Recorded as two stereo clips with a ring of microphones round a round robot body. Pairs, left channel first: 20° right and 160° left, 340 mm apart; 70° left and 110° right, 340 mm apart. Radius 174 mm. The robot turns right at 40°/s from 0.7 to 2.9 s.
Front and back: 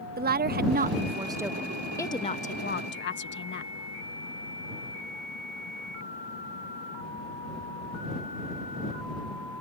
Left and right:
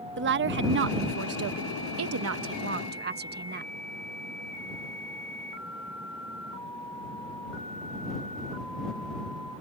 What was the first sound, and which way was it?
A woman speaking, 150° right.